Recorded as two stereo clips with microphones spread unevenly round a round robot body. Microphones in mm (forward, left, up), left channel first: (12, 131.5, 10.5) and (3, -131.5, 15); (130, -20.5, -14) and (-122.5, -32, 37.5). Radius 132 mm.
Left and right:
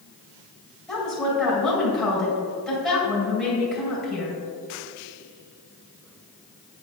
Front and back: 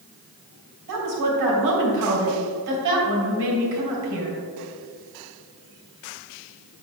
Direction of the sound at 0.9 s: Straight behind.